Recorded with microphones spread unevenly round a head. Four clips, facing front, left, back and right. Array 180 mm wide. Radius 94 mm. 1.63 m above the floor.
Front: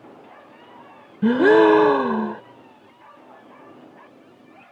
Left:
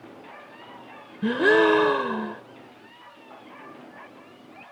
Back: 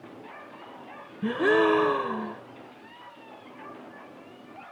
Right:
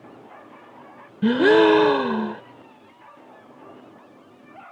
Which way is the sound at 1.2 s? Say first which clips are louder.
Right 4 dB, front 9 dB; 20° right.